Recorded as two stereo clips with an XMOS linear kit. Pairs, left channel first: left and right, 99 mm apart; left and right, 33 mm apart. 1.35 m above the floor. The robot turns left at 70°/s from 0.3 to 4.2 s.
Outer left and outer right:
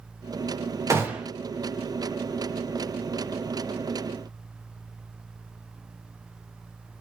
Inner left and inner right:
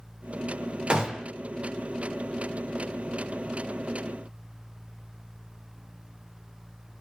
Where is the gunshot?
30° right (ahead or behind), 0.7 m; by 1.3 s 5° right (ahead or behind), 0.7 m.